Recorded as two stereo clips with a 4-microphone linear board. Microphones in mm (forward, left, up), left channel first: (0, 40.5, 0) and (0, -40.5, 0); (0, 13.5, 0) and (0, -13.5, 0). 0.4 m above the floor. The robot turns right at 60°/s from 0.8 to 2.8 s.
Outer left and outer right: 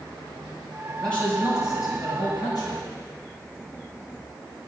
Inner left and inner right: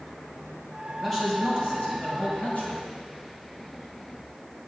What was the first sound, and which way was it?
A man speaking, 5° left.